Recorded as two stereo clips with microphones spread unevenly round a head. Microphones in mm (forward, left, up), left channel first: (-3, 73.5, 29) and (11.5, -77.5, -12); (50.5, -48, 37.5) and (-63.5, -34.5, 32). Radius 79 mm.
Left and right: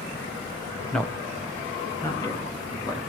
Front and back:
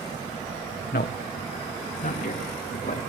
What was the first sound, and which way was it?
A man speaking, 15° left.